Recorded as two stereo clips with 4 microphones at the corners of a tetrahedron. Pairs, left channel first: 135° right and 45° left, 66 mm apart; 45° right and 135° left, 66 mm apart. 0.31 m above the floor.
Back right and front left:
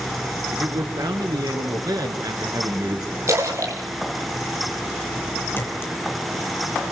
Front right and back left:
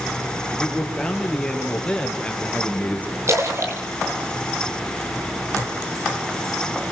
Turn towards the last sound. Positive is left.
turn(degrees=170)